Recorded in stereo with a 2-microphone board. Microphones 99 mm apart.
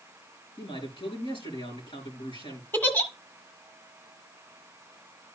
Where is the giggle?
20° left (ahead or behind), 1.7 m.